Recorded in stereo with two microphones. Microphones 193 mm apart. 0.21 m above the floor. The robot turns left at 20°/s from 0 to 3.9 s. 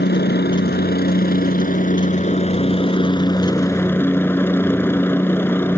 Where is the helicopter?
90° left; by 5.8 s 15° left.